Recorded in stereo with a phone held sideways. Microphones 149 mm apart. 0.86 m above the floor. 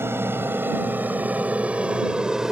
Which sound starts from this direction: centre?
An aircraft, at 0.0 s.